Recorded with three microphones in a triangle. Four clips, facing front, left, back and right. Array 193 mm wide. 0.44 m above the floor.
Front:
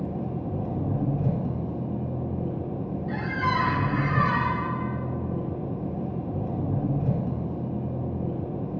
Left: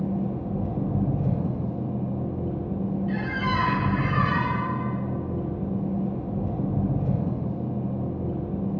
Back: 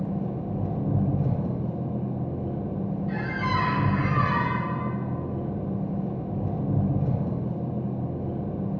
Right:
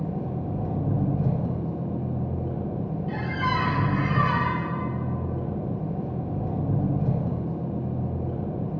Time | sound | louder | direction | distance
0.0 | an engine running | left 2 dB, back 1 dB | 75° right | 2.5 m
3.1 | a squeak | right 4 dB, front 3 dB | 55° right | 2.0 m